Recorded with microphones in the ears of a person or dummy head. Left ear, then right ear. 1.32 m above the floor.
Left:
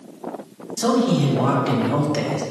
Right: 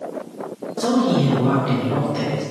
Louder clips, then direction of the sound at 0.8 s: Even; 60° left (ahead or behind).